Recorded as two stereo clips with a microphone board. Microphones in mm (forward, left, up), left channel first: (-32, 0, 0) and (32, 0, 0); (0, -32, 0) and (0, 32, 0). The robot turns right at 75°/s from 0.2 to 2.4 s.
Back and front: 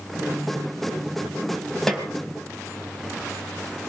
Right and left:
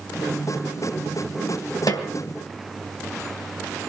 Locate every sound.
1.9 s a snare drum: 100° right, 3 m; by 2.1 s 85° right, 3 m